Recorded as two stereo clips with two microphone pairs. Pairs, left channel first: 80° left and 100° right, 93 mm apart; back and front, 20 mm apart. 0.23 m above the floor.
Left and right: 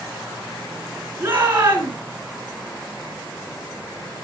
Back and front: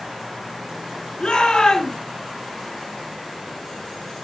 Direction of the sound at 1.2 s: 165° right.